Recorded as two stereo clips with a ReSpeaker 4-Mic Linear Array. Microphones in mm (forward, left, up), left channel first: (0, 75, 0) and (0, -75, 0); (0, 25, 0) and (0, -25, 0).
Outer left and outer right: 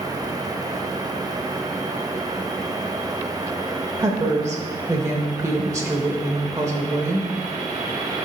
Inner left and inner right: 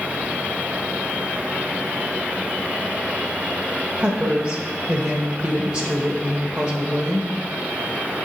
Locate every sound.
4.0 s a woman speaking: 20° right (ahead or behind), 0.9 m